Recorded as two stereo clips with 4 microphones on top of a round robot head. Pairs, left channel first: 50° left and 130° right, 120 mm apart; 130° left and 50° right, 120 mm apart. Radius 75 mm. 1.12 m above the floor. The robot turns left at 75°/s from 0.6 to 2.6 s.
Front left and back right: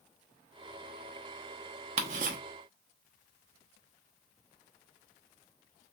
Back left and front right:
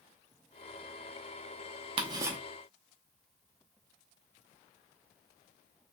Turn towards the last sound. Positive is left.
turn(degrees=-145)